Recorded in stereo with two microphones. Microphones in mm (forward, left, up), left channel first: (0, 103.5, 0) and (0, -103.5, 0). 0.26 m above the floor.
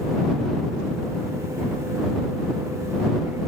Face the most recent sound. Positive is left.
No sound to turn to.